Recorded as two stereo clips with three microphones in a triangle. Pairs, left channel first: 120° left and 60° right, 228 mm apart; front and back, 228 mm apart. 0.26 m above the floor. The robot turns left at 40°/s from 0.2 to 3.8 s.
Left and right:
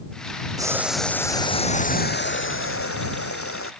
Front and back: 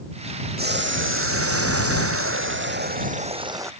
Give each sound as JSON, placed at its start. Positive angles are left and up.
{"t": 0.6, "sound": "boiling", "azimuth_deg": -135}